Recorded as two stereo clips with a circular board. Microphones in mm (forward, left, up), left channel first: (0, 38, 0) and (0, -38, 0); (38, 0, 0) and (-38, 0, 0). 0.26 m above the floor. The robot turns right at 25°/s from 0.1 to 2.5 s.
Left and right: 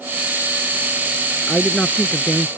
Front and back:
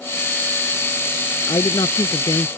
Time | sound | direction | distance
1.5 | a man speaking | 5° left | ?